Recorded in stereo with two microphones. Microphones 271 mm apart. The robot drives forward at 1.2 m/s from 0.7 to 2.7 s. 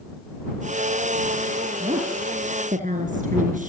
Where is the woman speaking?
20° right (ahead or behind), 3.5 m; by 3.7 s 30° right (ahead or behind), 2.5 m.